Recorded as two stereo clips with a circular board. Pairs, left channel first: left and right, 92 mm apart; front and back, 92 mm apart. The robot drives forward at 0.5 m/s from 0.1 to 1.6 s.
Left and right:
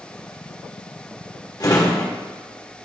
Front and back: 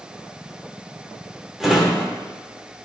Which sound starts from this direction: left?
A drawer, at 1.6 s.